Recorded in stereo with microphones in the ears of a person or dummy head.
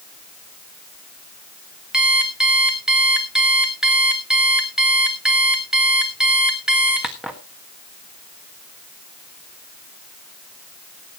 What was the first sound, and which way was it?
An alarm clock, centre (ahead or behind).